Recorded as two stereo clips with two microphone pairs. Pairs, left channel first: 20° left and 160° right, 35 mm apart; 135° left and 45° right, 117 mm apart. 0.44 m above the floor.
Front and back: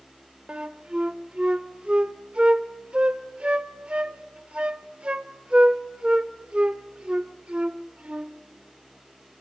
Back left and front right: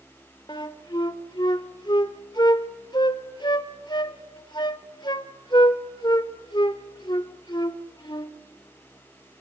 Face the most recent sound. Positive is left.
turn(degrees=160)